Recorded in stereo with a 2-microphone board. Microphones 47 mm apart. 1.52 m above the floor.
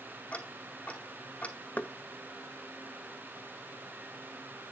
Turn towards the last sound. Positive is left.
turn(degrees=35)  # may be behind; listen again after turning